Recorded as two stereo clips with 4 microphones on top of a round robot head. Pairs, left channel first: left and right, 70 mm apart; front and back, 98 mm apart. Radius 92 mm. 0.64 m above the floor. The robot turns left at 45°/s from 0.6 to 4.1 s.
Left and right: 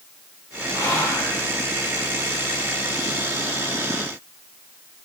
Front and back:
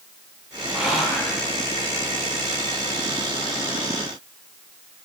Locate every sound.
0.7 s whispering: 105° left, 0.7 m; by 1.3 s 75° left, 0.7 m